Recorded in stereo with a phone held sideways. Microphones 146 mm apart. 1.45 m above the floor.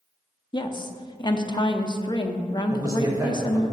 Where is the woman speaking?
30° left (ahead or behind), 0.6 m.